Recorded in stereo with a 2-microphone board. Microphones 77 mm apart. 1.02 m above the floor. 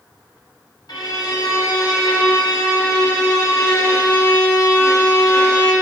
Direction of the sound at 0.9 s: 65° left (ahead or behind).